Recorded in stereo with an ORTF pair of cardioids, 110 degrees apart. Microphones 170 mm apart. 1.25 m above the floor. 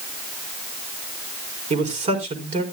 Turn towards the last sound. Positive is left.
turn(degrees=-45)